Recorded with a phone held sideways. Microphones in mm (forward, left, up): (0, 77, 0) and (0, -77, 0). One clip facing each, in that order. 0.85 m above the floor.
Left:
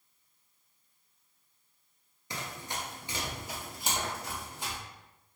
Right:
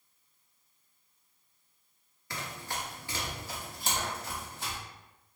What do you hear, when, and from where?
2.3 s running footsteps: 20° left (ahead or behind), 0.8 m; by 4.8 s 15° left (ahead or behind), 1.6 m